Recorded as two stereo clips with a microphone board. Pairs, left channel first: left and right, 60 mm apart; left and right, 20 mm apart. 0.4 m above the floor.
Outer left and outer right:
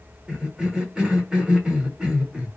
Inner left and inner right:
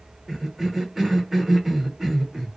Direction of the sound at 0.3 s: 15° right (ahead or behind).